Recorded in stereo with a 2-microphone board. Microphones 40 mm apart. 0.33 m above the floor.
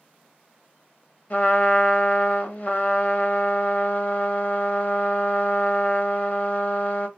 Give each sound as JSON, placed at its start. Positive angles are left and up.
{"t": 1.3, "sound": "a trumpet", "side_deg": 40, "distance_m": 0.8}